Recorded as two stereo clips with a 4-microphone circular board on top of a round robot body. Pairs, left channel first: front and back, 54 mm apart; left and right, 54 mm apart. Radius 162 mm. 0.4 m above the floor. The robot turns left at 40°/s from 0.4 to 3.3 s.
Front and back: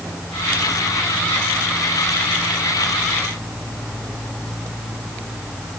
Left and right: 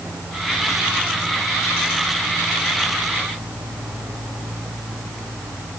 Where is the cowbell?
No cowbell in this recording.